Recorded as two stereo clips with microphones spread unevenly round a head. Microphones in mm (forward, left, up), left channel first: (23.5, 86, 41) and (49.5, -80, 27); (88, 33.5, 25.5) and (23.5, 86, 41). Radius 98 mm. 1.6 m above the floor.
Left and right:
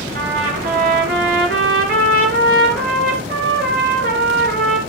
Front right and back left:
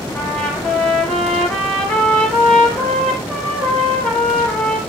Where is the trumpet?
130° right, 3.5 m.